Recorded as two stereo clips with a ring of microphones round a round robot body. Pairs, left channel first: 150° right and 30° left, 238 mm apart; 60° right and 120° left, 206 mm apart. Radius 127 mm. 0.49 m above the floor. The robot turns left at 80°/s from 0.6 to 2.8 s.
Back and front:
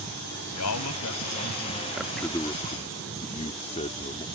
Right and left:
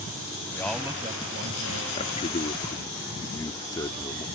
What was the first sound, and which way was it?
A man speaking, 140° right.